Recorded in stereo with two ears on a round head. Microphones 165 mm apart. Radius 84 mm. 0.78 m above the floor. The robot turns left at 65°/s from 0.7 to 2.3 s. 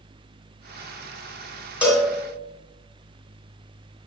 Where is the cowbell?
10° right (ahead or behind), 2.5 m; by 2.1 s 10° left (ahead or behind), 2.5 m.